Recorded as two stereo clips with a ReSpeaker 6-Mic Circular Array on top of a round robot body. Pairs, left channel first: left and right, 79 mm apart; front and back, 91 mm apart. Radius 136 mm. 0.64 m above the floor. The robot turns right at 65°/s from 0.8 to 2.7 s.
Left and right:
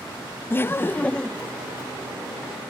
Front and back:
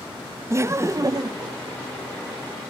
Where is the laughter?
135° left, 0.7 m; by 1.5 s 175° right, 0.7 m.